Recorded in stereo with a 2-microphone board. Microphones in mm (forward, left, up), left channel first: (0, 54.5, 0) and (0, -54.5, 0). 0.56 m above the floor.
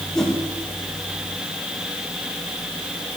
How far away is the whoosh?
About 6 m.